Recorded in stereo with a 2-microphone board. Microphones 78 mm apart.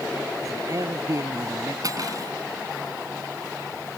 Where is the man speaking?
45° right (ahead or behind).